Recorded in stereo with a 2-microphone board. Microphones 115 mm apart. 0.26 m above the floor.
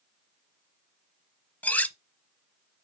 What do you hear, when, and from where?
1.6 s cutlery clinking: 15° left (ahead or behind), 0.8 m